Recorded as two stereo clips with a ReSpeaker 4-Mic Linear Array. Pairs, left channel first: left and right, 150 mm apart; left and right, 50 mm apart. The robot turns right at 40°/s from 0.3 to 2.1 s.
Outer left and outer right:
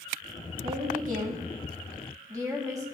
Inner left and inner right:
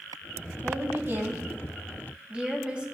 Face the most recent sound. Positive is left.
turn(degrees=-25)